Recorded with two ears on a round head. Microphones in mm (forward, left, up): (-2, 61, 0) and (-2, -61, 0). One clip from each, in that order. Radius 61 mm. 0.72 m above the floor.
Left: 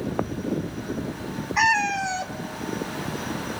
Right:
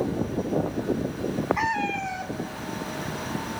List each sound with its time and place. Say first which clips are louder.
1.6 s a cat meowing: left 11 dB; 75° left (ahead or behind), 1.6 m